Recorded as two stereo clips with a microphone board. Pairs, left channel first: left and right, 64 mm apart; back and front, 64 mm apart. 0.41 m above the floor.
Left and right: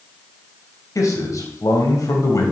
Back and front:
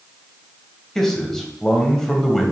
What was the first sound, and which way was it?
A man speaking, 95° left.